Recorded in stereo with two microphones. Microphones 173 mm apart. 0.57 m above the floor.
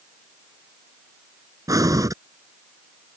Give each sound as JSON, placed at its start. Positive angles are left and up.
{"t": 1.7, "sound": "breathing", "side_deg": -20}